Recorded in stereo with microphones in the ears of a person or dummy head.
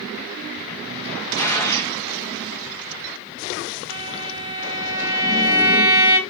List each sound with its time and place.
1.4 s a gunshot: 20° left (ahead or behind), 1.5 m
3.9 s a violin: 35° right (ahead or behind), 1.5 m